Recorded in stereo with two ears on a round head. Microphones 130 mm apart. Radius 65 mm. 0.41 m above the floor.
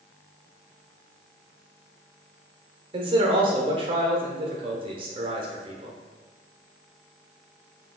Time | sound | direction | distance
2.9 | a man speaking | 35° right (ahead or behind) | 0.9 m